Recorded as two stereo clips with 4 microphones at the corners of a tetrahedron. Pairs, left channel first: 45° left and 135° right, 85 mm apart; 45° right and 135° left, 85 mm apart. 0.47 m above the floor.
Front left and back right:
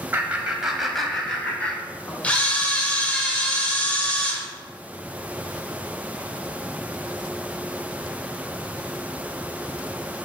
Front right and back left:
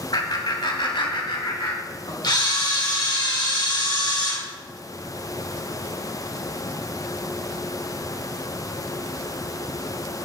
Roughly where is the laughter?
Right.